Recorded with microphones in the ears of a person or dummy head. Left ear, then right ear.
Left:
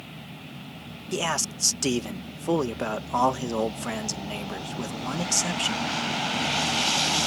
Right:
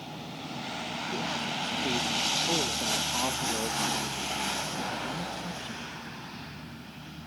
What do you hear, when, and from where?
1.1 s a man speaking: 70° left (ahead or behind)